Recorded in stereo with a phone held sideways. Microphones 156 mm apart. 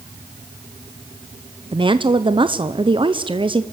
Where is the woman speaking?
30° right (ahead or behind), 0.7 m.